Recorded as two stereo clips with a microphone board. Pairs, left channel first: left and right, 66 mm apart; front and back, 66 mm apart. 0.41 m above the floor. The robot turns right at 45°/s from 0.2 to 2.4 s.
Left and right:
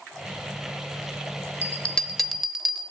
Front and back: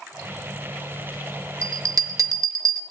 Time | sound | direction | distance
1.6 | a bell | 150° left | 0.8 m